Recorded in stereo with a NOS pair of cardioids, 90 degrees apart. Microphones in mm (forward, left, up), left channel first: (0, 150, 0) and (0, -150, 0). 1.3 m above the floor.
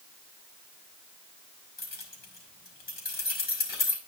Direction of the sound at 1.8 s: 30° left.